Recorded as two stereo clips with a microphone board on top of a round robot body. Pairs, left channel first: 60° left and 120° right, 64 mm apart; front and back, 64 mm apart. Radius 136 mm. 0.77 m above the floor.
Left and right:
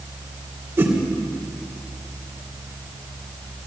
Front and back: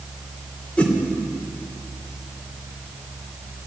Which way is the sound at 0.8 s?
70° right.